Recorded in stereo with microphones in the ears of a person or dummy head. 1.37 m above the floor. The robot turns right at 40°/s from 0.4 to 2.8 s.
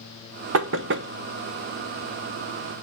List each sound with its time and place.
0.5 s knocking: 85° right, 0.7 m; by 1.1 s 65° right (ahead or behind), 0.7 m